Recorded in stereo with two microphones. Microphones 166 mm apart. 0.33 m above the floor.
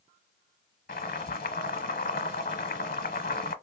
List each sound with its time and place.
0.9 s boiling: 70° left (ahead or behind), 1.0 m